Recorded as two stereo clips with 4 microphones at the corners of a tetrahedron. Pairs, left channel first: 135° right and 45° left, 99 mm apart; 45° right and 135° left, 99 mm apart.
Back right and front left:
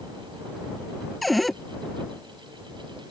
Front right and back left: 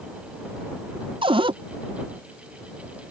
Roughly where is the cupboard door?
Behind left.